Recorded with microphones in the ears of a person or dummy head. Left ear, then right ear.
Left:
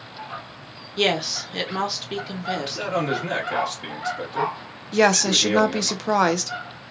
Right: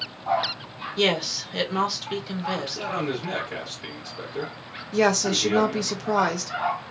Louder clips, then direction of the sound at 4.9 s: Left 4 dB; 20° left (ahead or behind).